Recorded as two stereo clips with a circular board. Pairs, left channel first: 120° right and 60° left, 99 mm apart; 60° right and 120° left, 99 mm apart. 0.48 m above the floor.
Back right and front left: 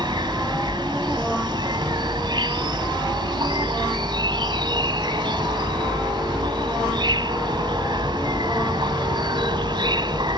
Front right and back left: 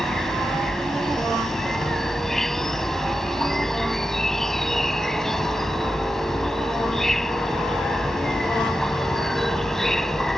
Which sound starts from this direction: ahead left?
An insect, at 0.0 s.